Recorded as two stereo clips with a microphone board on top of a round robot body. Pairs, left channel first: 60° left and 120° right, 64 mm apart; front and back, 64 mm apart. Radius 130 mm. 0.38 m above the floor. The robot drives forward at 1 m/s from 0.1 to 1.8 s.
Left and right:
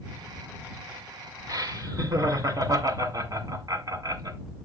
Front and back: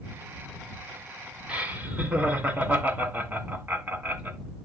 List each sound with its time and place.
1.5 s laughter: 120° right, 2.5 m; by 4.4 s 125° right, 3 m